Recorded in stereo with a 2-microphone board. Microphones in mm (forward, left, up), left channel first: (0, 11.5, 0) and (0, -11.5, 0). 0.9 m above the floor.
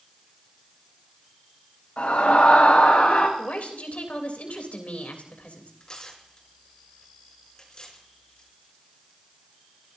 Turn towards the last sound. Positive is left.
turn(degrees=30)  # may be behind; listen again after turning